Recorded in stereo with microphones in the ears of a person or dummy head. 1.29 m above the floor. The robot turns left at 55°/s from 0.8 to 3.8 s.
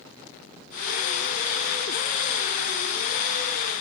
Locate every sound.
Only background noise.